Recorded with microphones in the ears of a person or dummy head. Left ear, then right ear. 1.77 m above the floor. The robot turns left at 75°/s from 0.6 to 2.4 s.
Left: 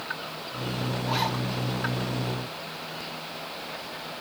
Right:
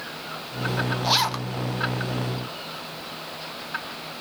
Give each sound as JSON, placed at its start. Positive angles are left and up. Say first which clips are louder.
{"t": 1.0, "sound": "a zipper", "louder": "right 6 dB", "azimuth_deg": -70, "distance_m": 0.6}